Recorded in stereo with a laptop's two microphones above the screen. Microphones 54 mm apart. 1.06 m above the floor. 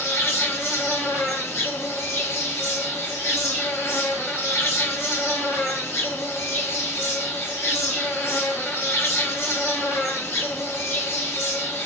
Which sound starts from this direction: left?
An insect, at 0.0 s.